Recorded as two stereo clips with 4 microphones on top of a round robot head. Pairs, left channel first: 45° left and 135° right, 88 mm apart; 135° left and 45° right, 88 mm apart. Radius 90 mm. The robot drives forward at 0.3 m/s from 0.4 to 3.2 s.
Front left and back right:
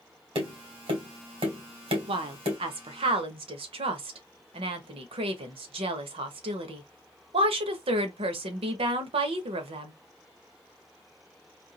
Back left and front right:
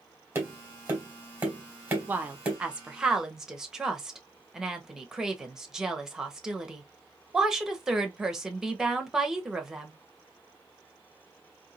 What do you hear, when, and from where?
0.3 s tapping: 110° right, 2 m; by 2.6 s 125° right, 2.5 m
2.1 s a woman speaking: 115° right, 0.9 m; by 9.9 s 130° right, 1.1 m